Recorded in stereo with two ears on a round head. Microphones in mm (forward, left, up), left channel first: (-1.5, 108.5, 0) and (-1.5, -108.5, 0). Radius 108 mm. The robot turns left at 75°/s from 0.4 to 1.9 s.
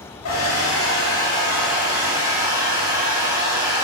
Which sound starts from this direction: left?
A hair dryer, at 0.2 s.